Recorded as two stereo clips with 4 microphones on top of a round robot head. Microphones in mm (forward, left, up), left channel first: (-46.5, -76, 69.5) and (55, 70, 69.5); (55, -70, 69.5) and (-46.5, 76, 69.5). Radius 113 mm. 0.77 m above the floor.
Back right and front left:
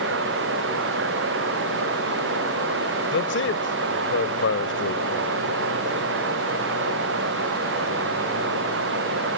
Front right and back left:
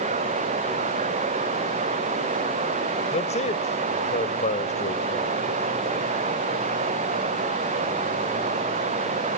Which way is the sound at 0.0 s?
70° left.